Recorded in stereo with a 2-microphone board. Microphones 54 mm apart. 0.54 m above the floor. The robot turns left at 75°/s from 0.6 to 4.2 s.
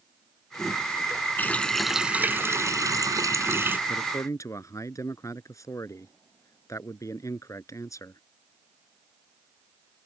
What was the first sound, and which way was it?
A running tap, 35° left.